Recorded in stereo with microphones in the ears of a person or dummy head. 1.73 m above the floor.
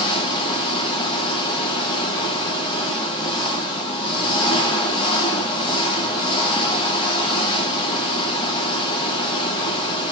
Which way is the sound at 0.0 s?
25° left (ahead or behind).